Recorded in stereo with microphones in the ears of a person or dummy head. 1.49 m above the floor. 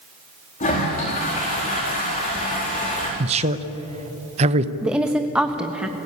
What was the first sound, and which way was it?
A toilet flushing, 35° left (ahead or behind).